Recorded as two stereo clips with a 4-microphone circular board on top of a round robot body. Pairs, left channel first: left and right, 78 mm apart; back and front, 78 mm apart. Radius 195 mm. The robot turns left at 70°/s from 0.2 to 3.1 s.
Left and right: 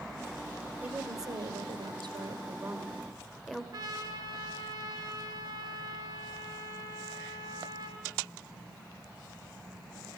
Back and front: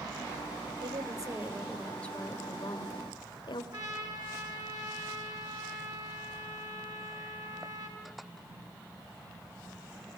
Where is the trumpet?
40° right, 4 m.